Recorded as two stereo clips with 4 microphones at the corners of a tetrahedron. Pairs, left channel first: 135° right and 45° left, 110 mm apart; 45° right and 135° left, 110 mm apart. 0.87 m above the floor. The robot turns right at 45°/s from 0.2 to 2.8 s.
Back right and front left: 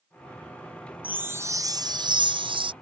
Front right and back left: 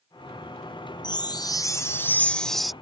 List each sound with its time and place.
1.0 s a chime: 30° right; by 2.7 s 50° left